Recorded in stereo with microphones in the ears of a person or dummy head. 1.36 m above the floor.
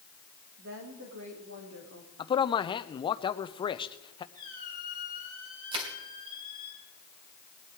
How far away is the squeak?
About 3.5 m.